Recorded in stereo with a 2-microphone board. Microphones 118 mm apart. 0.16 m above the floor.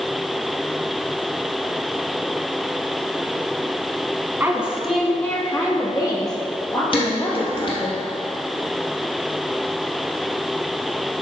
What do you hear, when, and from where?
4.4 s a woman speaking: 20° right (ahead or behind), 1.1 m; by 7.9 s 45° left (ahead or behind), 3.5 m
6.9 s dishes clattering: 50° left (ahead or behind), 3 m